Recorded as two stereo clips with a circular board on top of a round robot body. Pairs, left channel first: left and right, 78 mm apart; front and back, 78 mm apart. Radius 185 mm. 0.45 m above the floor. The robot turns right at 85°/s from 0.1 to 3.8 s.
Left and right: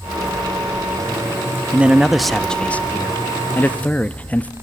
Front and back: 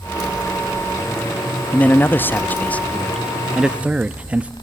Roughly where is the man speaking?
Ahead right.